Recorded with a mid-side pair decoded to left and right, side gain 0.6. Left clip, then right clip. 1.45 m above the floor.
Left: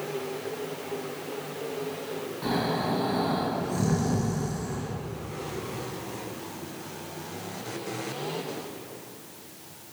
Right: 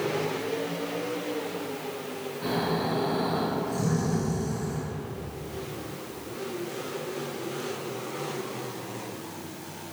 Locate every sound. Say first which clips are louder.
2.4 s snoring: even; 20° left, 1.2 m